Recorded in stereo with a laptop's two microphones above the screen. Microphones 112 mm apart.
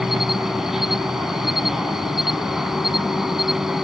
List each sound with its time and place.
0.0 s an insect: 5° right (ahead or behind)